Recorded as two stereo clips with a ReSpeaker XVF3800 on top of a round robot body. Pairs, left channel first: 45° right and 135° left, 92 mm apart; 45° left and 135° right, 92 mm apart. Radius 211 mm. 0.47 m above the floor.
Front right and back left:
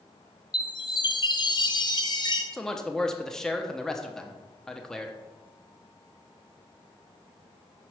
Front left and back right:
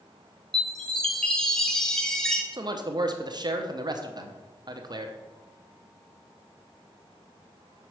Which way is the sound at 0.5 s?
35° right.